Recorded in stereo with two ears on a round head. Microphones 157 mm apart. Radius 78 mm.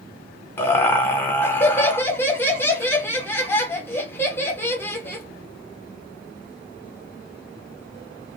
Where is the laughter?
15° left (ahead or behind), 0.9 m.